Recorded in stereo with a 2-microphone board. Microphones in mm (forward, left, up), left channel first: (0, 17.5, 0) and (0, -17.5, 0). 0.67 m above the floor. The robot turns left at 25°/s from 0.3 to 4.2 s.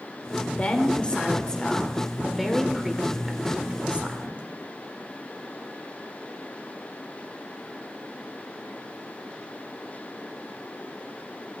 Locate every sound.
0.5 s a woman speaking: 45° left, 2.0 m; by 4.4 s 45° right, 2.0 m